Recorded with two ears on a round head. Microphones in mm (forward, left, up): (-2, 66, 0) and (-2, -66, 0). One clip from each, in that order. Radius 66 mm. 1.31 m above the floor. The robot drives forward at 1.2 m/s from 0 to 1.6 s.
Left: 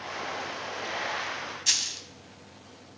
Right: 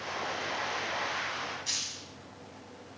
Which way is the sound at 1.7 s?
55° left (ahead or behind).